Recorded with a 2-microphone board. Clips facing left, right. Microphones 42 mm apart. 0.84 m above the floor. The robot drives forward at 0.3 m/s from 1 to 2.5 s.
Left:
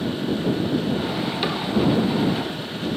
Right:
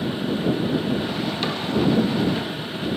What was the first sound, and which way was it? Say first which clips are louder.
A cupboard door: left 1 dB; 10° left (ahead or behind).